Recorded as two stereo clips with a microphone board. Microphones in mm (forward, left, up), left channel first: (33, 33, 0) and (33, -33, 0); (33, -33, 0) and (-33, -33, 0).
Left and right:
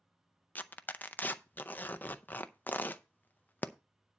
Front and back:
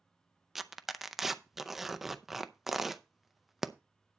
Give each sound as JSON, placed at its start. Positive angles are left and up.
{"t": 0.6, "sound": "tearing paper", "azimuth_deg": 100, "distance_m": 0.5}